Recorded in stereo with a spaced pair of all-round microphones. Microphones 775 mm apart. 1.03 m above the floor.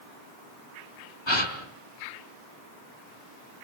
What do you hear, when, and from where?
1.3 s a gasp: 35° left (ahead or behind), 3.5 m